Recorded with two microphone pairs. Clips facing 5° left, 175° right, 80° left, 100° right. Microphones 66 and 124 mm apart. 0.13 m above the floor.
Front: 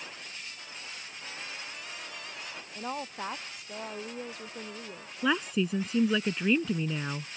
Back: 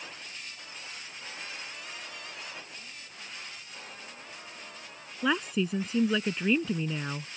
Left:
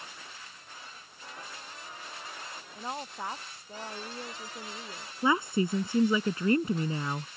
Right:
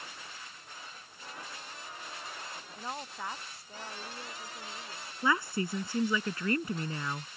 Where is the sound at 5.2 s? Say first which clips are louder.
Even, left 4 dB; 95° left.